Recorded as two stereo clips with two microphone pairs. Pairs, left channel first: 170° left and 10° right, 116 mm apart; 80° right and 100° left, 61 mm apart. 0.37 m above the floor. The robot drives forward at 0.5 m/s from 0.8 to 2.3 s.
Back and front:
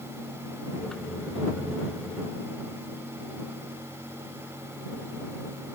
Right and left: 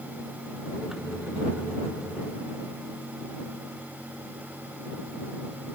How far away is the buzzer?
No buzzer in this recording.